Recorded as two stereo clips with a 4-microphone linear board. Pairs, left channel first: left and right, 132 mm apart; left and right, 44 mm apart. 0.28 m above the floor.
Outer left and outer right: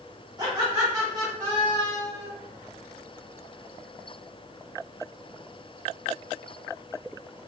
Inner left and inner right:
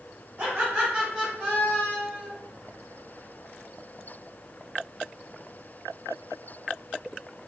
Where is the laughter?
20° right (ahead or behind), 1.5 m; by 2.3 s 35° left (ahead or behind), 1.5 m.